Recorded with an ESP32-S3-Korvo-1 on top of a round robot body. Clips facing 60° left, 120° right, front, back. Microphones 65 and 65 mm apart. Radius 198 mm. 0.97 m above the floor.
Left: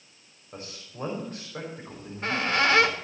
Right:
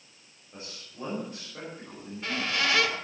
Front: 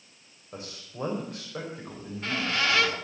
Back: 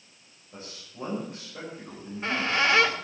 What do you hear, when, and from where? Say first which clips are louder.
0.5 s a man speaking: left 3 dB, front 3 dB; 10° left, 5.5 m
1.9 s a squeak: left 4 dB, back 3 dB; 105° left, 1.9 m